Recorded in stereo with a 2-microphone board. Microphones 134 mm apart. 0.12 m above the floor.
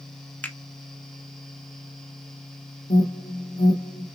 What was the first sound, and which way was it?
A finger snap, 15° left (ahead or behind).